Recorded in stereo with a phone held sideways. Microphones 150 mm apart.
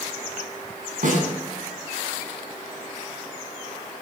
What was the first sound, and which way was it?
A snare drum, 70° right (ahead or behind).